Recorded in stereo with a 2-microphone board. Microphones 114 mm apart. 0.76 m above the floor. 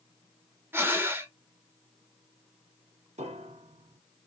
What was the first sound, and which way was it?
Breathing, 20° right (ahead or behind).